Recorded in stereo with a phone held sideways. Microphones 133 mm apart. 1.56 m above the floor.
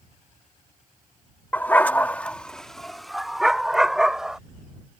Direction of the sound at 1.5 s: 10° left (ahead or behind).